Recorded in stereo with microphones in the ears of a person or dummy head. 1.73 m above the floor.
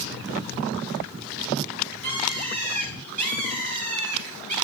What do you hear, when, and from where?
2.0 s a bird: 40° right (ahead or behind), 6.5 m